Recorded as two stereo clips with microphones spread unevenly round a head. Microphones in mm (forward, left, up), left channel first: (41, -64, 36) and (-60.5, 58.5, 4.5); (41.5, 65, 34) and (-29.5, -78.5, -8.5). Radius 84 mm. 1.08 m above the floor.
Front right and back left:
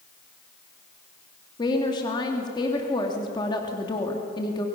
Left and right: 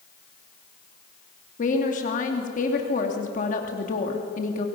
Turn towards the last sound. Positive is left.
turn(degrees=20)